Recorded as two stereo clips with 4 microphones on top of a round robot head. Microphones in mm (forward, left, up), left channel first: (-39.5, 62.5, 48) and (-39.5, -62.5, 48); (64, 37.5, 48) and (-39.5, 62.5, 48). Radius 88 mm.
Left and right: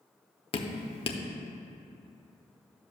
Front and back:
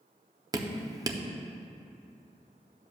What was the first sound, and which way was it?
Dripping, 120° left.